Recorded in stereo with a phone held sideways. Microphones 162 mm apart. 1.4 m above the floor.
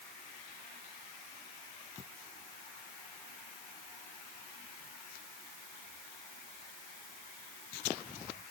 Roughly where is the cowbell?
No cowbell in this recording.